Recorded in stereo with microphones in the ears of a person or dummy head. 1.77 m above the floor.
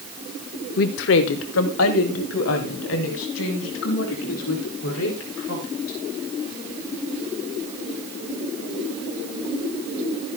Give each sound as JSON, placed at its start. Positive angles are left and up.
{"t": 0.8, "sound": "a woman speaking", "side_deg": 45, "distance_m": 0.7}